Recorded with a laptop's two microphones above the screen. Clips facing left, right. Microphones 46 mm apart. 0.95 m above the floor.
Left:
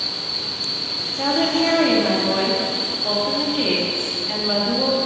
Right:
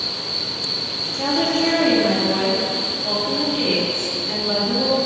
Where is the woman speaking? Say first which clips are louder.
Even; 10° left (ahead or behind), 1.7 m.